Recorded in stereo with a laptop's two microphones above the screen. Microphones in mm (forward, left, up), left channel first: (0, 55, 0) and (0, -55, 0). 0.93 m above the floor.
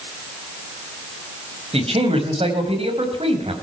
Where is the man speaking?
60° right (ahead or behind), 5 m.